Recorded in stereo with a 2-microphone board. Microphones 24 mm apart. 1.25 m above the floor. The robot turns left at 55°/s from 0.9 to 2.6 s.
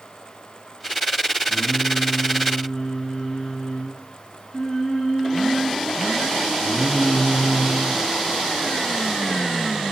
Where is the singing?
85° left, 7 m; by 8.0 s 25° left, 7 m.